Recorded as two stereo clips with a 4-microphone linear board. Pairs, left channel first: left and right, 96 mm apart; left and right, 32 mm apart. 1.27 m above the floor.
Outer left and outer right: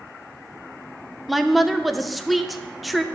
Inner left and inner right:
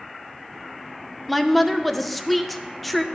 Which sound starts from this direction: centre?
A woman speaking, at 1.3 s.